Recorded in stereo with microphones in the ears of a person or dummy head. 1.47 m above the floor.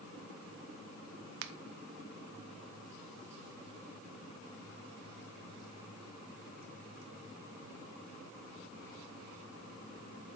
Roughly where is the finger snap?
Right.